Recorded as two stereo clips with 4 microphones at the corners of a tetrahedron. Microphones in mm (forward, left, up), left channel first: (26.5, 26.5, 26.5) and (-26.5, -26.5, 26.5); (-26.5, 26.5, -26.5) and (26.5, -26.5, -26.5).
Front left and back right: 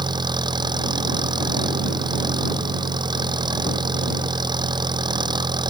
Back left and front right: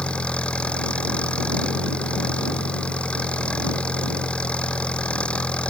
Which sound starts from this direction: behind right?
An engine running, at 0.0 s.